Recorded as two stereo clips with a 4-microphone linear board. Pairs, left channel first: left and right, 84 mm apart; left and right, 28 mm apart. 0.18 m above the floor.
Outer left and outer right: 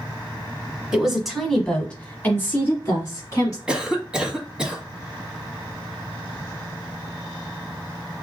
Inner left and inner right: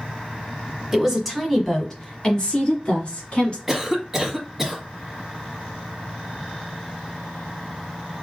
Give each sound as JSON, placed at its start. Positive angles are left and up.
{"t": 0.9, "sound": "a woman speaking", "side_deg": -10, "distance_m": 1.2}
{"t": 3.7, "sound": "a cough", "side_deg": -10, "distance_m": 1.0}